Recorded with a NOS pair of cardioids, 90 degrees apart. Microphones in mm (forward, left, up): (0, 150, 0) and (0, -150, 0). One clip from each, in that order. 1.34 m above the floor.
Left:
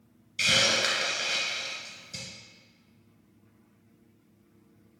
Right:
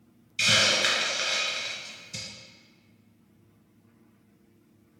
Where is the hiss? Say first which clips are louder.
Right 2 dB; 10° right, 1.3 m.